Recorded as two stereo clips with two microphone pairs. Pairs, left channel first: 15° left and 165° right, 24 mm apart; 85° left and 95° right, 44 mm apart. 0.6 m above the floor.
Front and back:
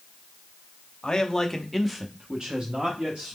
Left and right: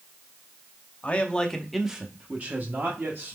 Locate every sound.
1.0 s a man speaking: 55° left, 0.7 m; by 3.4 s 125° right, 1.0 m